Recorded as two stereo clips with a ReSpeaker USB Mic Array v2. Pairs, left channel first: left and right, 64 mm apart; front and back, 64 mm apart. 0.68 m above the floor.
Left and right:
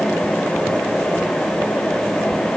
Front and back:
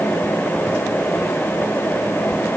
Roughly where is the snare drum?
I don't hear a snare drum.